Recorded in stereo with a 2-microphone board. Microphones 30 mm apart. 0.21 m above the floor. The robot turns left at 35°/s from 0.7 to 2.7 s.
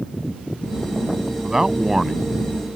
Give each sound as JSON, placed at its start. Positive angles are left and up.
{"t": 1.4, "sound": "a man speaking", "azimuth_deg": -145}